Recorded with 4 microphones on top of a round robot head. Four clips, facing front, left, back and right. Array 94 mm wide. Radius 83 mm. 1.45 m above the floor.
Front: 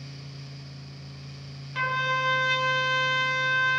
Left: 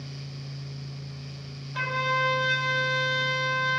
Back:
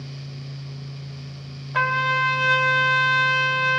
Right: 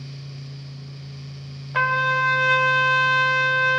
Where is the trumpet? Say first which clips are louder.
Right 7 dB, back 5 dB; 130° right, 1.1 m.